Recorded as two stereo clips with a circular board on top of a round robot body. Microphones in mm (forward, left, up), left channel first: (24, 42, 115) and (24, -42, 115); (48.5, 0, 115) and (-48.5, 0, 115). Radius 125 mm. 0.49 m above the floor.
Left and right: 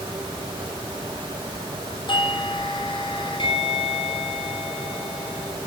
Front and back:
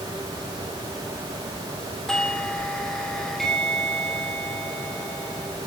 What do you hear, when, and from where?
2.1 s a doorbell: 85° left, 4 m